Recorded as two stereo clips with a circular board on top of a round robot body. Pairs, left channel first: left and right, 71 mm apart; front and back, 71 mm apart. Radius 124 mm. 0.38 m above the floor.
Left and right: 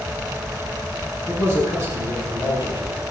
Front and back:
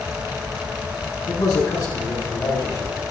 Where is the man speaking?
40° right, 7.5 m.